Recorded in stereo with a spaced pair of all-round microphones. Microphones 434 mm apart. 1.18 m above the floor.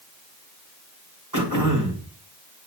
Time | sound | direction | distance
1.3 | throat clearing | 45° right (ahead or behind) | 2.5 m